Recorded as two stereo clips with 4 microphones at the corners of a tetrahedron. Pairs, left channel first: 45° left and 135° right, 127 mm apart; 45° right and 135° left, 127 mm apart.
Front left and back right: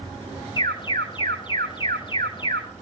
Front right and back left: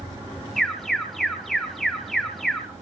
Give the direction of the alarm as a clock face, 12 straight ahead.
11 o'clock.